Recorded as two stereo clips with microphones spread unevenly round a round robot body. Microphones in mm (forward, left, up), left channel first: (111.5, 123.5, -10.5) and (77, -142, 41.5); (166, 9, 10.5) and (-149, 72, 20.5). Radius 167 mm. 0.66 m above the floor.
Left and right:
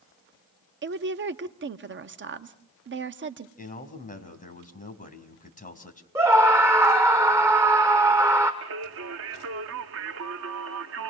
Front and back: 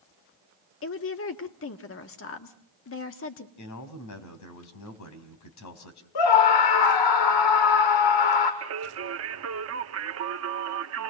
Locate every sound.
0.8 s a woman speaking: 50° right, 1.3 m
3.6 s a man speaking: 20° left, 4.5 m
6.2 s a scream: 15° right, 1.8 m
8.6 s singing: 145° right, 0.9 m